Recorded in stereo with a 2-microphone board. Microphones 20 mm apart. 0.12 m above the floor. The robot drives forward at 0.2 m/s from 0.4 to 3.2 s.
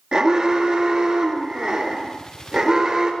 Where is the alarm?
40° right (ahead or behind), 2.5 m.